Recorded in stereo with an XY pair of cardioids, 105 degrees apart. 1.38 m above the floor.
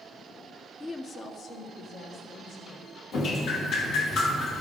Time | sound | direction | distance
0.8 | a woman speaking | 30° left | 0.7 m
3.1 | dripping | 70° left | 1.5 m